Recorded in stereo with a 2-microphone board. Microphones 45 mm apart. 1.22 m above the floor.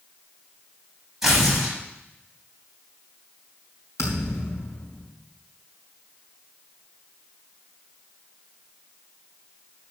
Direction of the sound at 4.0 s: 80° left.